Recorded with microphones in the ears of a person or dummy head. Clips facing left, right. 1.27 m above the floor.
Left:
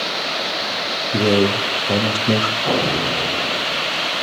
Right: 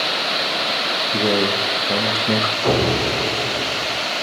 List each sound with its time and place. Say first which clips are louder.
1.1 s a man speaking: left 4 dB; 20° left (ahead or behind), 1.4 m
2.6 s an explosion: right 5 dB; 65° right (ahead or behind), 4.5 m